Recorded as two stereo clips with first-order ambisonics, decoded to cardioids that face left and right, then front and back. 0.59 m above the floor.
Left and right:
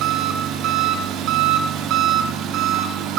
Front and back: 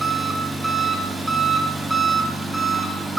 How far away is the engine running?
About 0.9 m.